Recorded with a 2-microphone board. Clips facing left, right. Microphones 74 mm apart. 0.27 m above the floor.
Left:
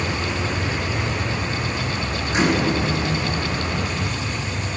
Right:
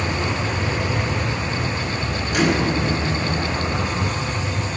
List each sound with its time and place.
2.3 s a microwave: 25° left (ahead or behind), 2.5 m